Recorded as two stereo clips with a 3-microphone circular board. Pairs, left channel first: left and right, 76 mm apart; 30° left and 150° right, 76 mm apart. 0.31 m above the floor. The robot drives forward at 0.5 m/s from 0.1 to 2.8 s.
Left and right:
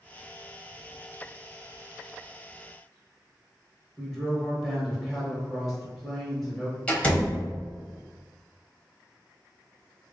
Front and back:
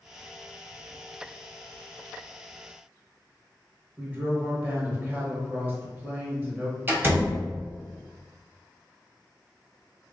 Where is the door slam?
160° left, 0.9 m.